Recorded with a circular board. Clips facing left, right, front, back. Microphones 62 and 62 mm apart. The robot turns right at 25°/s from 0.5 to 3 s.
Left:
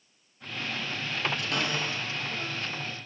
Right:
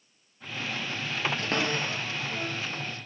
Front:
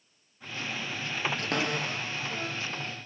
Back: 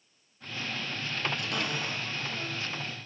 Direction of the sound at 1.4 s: 40° right.